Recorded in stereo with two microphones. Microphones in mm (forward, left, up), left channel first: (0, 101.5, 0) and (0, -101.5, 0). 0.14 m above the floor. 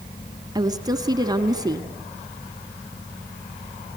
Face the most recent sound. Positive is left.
turn(degrees=-20)  # may be behind; listen again after turning